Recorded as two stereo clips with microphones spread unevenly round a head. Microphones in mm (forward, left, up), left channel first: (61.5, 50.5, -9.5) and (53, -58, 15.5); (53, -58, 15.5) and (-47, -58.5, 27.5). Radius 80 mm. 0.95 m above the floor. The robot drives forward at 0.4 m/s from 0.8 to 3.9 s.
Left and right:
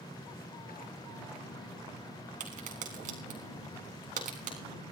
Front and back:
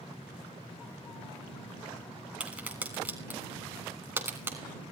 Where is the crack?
100° right, 4 m; by 4.6 s 110° right, 4 m.